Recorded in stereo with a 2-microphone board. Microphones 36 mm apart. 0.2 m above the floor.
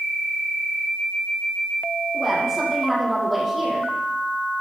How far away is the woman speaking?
About 8 m.